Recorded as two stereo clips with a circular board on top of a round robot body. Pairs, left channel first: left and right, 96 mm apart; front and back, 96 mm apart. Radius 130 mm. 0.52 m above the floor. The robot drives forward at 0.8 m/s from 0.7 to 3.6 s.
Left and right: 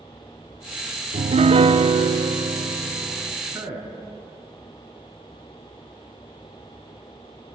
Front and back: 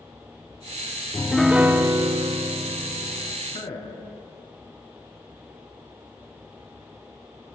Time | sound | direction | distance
1.1 | a piano | 75° right | 0.7 m
3.5 | a man speaking | 25° right | 6.5 m